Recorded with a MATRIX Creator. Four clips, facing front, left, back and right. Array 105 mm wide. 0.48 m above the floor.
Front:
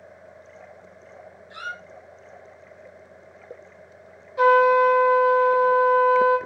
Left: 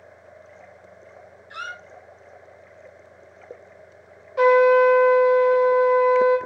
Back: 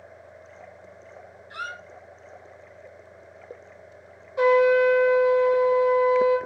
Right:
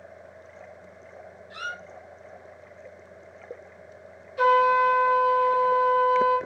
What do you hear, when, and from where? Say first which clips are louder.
1.5 s a squeak: left 1 dB, even; 120° left, 0.5 m
4.4 s a trumpet: left 5 dB, front 2 dB; 100° left, 0.9 m